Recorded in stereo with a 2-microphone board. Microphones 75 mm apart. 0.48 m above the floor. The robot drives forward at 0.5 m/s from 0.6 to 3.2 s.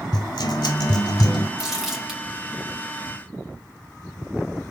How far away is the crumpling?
About 3 m.